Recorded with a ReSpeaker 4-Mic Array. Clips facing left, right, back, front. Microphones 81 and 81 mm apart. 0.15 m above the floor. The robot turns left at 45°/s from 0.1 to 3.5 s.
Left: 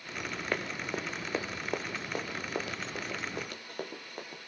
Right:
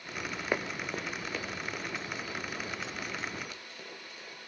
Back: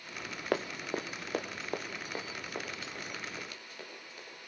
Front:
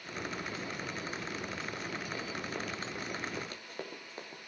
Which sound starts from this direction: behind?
Running footsteps, at 0.5 s.